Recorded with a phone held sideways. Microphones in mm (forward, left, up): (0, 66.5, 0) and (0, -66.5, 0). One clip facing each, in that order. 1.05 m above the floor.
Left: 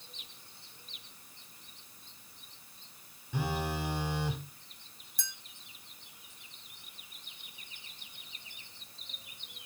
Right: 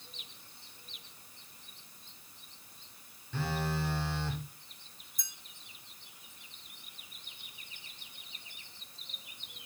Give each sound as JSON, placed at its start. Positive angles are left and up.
{"t": 3.3, "sound": "a phone buzzing", "side_deg": 15, "distance_m": 1.3}
{"t": 5.2, "sound": "a clink", "side_deg": 75, "distance_m": 1.2}